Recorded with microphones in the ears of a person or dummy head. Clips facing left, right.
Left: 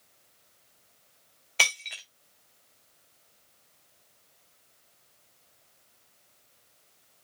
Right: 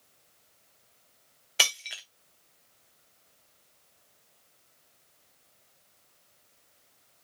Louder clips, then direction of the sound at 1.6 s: Left 1 dB; 5° right (ahead or behind).